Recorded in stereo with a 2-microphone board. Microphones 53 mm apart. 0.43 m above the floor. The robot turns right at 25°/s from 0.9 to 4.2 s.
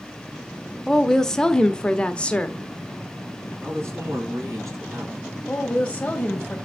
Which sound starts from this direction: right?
A man speaking, at 3.6 s.